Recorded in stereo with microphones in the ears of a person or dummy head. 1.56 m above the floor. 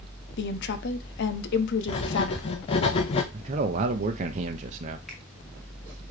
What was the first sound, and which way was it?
A woman speaking, 65° left (ahead or behind).